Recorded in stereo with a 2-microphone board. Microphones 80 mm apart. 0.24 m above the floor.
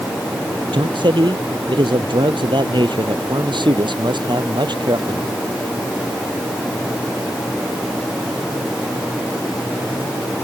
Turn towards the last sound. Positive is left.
turn(degrees=-70)  # may be behind; listen again after turning